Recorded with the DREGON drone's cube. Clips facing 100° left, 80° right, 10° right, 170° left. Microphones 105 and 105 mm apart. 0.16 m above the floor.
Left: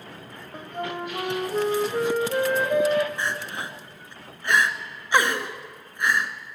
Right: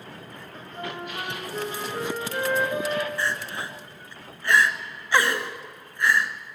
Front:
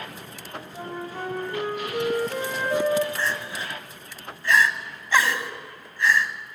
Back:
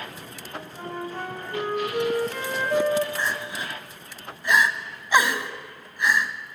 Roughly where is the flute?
Left.